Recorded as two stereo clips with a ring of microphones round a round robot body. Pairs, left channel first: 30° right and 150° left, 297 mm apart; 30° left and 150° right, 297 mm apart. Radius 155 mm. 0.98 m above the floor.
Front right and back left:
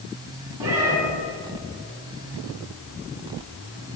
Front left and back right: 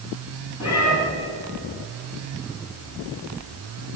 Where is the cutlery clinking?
No cutlery clinking in this recording.